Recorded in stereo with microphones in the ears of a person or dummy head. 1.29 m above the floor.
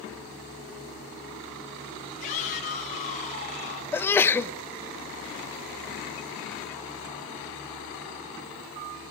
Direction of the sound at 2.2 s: 45° left (ahead or behind).